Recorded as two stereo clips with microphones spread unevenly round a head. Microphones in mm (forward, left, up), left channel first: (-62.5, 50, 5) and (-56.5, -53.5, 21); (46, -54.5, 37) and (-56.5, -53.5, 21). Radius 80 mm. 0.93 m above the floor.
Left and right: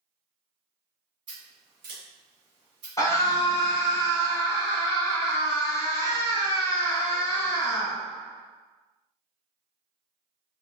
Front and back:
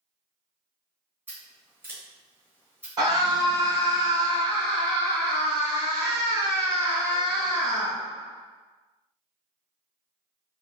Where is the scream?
140° left, 1.2 m.